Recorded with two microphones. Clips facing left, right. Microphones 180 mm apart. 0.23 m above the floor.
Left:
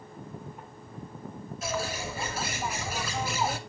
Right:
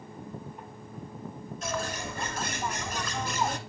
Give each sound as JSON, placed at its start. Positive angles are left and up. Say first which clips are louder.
{"t": 1.6, "sound": "a bird", "louder": "left 1 dB", "side_deg": 10, "distance_m": 0.6}